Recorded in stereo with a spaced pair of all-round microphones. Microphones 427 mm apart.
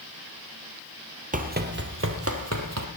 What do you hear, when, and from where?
1.3 s running footsteps: 20° right (ahead or behind), 1.4 m; by 2.9 s 40° right (ahead or behind), 1.9 m